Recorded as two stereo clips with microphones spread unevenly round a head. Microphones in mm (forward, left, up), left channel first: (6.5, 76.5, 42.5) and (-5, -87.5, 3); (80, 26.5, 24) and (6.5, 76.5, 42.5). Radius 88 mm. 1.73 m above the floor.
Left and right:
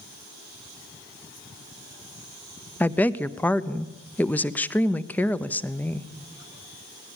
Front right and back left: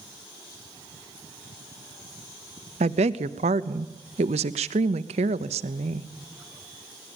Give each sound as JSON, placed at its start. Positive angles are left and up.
{"t": 2.8, "sound": "a woman speaking", "azimuth_deg": 170, "distance_m": 0.7}